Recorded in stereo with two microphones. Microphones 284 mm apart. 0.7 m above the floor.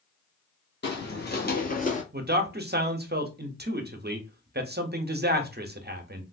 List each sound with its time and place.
0.8 s footsteps: 40° left (ahead or behind), 1.2 m; by 2.0 s 25° left (ahead or behind), 0.7 m
2.1 s a man speaking: 35° right (ahead or behind), 0.6 m